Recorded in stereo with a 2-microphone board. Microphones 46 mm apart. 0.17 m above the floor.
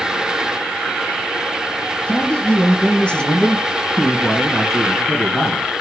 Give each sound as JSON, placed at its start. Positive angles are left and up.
{"t": 2.1, "sound": "a man speaking", "side_deg": 30, "distance_m": 2.0}